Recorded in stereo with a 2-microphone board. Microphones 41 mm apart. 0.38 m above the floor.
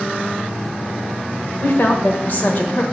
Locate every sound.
1.6 s a woman speaking: 45° left (ahead or behind), 1.3 m